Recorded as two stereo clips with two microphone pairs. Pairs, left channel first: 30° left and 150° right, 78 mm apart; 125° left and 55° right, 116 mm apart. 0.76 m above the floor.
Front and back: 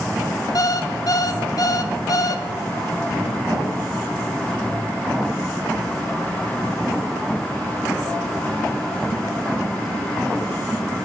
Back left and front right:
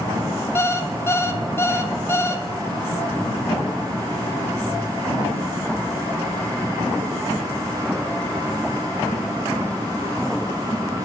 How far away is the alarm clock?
About 0.5 m.